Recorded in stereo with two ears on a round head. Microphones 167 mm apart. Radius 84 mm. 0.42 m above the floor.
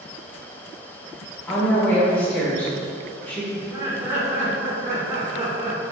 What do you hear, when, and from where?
1.5 s a woman speaking: 10° left (ahead or behind), 0.9 m
3.5 s laughter: 20° right (ahead or behind), 0.9 m